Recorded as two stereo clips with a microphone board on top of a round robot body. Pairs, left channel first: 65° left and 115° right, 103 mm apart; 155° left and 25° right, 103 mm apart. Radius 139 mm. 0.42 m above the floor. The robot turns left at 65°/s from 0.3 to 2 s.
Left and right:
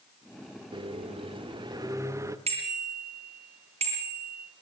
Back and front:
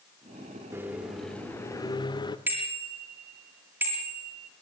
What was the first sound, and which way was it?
A microwave, 85° right.